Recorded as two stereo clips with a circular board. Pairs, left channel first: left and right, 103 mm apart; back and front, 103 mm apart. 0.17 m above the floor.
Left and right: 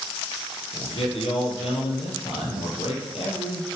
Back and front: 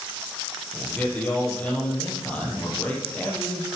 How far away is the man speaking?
About 3.5 m.